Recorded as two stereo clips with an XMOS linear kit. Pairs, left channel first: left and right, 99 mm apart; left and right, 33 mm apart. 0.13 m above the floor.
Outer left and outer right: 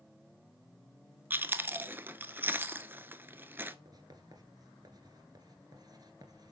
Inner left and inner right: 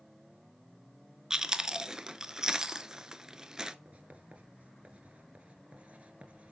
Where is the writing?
45° right (ahead or behind), 1.5 m.